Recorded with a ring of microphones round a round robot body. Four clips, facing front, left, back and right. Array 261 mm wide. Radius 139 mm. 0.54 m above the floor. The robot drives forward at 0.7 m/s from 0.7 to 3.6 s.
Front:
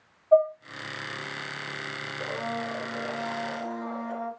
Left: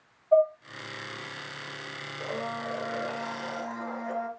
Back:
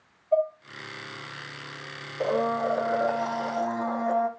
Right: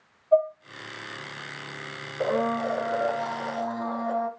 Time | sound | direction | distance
0.3 | dishes clattering | 5° right | 4 m
2.2 | a blender | 125° right | 0.7 m